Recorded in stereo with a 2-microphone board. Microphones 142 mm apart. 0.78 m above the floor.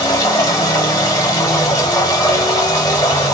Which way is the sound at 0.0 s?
25° left (ahead or behind).